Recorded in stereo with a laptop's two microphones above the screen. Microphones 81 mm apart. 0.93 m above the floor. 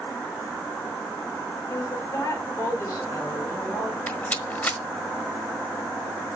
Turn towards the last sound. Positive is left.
turn(degrees=20)  # may be behind; listen again after turning